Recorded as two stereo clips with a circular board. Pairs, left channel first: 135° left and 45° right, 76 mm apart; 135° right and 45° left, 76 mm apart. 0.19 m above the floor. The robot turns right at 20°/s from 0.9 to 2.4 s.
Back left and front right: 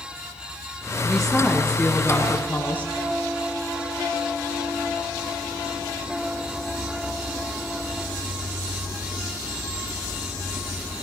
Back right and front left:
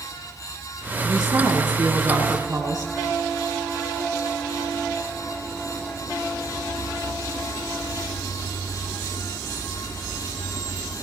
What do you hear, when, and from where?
1.0 s a woman speaking: 45° left, 3 m; by 2.9 s 70° left, 3 m